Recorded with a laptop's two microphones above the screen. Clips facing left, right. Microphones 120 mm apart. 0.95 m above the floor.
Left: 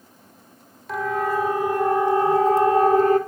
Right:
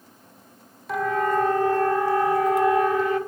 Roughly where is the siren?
Centre.